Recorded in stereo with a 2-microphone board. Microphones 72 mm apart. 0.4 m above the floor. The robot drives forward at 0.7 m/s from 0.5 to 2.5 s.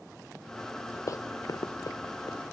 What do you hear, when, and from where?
1.1 s running footsteps: 45° left (ahead or behind), 0.5 m; by 2.4 s 50° left (ahead or behind), 2.5 m